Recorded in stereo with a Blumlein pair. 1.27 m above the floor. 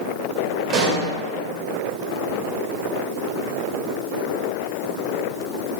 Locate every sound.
0.7 s a pop: 25° right, 1.1 m